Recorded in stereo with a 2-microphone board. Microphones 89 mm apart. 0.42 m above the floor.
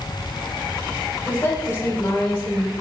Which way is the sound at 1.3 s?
30° left (ahead or behind).